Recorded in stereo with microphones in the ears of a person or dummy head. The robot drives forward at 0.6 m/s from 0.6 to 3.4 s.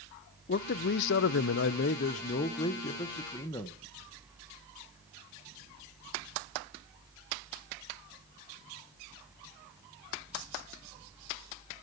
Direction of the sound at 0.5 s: 55° left (ahead or behind).